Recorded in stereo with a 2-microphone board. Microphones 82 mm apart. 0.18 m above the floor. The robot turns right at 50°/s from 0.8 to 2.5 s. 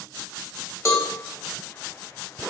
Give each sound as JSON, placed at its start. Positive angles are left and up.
{"t": 0.8, "sound": "a cowbell", "side_deg": 40, "distance_m": 0.7}